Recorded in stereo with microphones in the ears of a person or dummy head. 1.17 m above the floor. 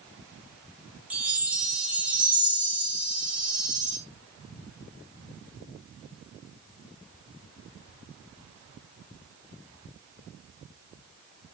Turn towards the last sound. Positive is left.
turn(degrees=-10)  # may be behind; listen again after turning